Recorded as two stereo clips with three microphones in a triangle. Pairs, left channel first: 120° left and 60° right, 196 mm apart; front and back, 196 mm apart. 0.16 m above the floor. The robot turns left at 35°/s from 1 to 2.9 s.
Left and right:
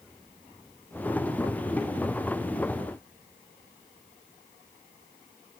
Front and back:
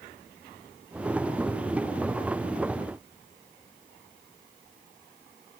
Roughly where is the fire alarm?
I don't hear a fire alarm.